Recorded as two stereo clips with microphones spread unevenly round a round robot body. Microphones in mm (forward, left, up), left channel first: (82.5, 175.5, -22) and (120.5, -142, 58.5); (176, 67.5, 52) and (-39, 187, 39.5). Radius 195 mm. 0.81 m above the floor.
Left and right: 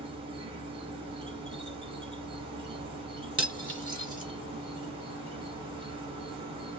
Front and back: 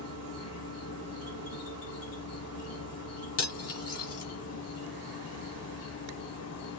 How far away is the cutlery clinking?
About 1.6 m.